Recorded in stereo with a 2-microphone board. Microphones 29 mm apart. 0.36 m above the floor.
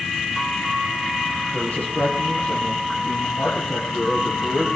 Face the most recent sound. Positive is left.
turn(degrees=85)